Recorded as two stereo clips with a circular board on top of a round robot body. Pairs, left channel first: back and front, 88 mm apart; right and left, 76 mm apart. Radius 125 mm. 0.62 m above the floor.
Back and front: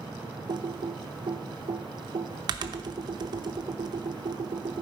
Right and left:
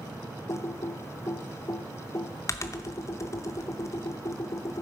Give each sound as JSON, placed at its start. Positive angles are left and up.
{"t": 0.5, "sound": "typing on a keyboard", "azimuth_deg": -40, "distance_m": 0.7}